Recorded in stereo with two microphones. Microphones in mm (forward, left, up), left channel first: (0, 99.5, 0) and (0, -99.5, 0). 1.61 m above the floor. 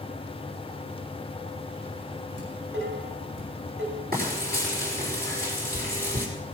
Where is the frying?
50° right (ahead or behind), 4.5 m.